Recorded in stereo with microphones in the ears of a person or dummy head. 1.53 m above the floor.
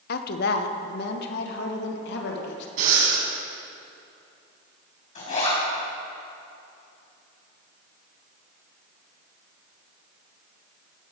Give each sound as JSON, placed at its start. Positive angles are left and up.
{"t": 0.1, "sound": "a woman speaking", "side_deg": 60, "distance_m": 1.2}
{"t": 2.8, "sound": "breathing", "side_deg": -50, "distance_m": 3.5}
{"t": 5.2, "sound": "a zipper", "side_deg": 45, "distance_m": 4.5}